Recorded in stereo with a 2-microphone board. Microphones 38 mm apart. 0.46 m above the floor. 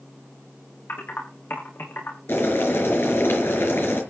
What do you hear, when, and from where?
0.9 s typing on a keyboard: 75° left (ahead or behind), 6 m
2.3 s boiling: 85° left, 5 m